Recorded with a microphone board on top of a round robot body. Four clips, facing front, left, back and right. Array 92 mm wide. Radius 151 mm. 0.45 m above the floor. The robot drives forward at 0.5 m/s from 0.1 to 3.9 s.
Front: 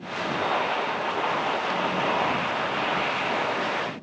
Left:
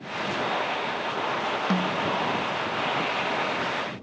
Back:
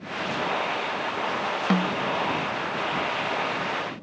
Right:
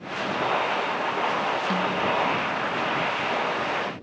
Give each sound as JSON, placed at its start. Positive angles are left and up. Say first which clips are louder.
{"t": 1.7, "sound": "a snare drum", "louder": "right 1 dB, back 2 dB", "azimuth_deg": 165, "distance_m": 0.9}